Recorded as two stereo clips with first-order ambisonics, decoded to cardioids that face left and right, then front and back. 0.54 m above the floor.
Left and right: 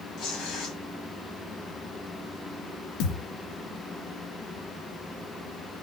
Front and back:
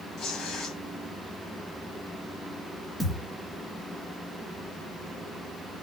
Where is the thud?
85° left, 2.5 m.